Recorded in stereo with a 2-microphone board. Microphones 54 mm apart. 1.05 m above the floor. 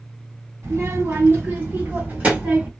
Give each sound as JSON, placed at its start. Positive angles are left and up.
{"t": 0.6, "sound": "a child speaking", "side_deg": -50, "distance_m": 2.0}